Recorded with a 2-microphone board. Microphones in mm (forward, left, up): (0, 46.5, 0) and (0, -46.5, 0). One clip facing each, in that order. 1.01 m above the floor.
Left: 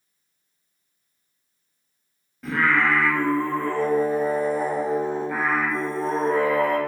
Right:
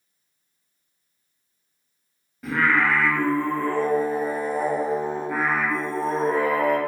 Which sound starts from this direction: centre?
Singing, at 2.4 s.